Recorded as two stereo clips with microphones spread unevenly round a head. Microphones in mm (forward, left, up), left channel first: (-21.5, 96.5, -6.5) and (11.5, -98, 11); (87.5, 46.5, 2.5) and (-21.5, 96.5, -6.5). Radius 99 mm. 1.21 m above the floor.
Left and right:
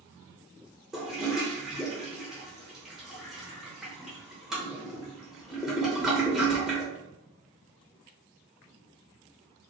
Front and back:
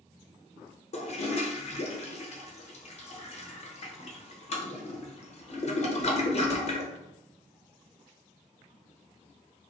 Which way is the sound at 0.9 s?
5° left.